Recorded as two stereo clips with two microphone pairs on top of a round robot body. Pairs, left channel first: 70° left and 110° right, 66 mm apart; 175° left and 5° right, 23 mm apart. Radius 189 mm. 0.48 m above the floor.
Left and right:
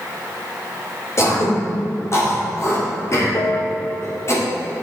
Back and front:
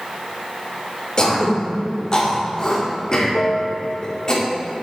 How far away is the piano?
About 0.7 m.